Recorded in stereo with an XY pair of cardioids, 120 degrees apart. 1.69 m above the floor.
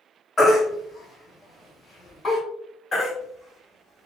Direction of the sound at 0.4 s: 35° left.